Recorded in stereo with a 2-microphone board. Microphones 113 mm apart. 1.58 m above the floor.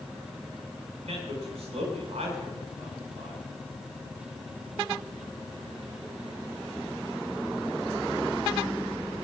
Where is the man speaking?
90° right, 7.5 m.